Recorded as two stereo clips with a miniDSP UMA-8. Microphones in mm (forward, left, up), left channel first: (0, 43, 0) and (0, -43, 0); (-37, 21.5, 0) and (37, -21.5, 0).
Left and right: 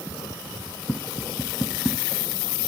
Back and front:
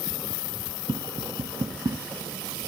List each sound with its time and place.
0.9 s tapping: 5° right